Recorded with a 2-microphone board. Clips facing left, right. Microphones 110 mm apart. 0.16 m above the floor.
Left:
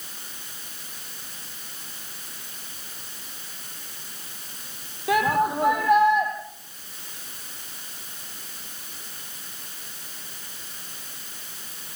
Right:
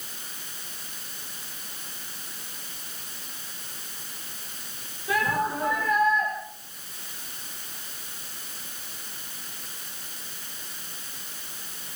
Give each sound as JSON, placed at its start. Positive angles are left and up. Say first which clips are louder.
{"t": 5.1, "sound": "a shout", "louder": "left 5 dB", "side_deg": 65, "distance_m": 6.0}